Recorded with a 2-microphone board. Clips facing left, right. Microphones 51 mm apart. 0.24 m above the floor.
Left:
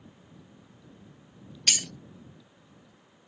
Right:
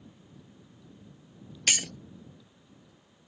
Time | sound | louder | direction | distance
1.7 | breaking glass | right 2 dB | 20° right (ahead or behind) | ?